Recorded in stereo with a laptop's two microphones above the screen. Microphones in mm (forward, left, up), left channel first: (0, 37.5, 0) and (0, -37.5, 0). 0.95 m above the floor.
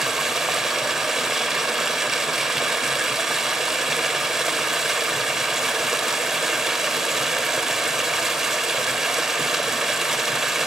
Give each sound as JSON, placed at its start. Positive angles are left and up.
{"t": 0.0, "sound": "running water", "side_deg": -5, "distance_m": 1.0}